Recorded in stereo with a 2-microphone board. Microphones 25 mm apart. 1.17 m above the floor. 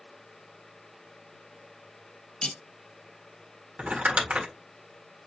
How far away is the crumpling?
About 1.7 m.